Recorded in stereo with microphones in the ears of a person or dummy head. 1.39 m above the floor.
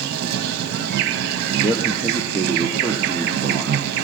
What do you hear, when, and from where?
0.0 s an insect: 55° right (ahead or behind), 0.8 m
1.6 s a man speaking: 5° left (ahead or behind), 0.7 m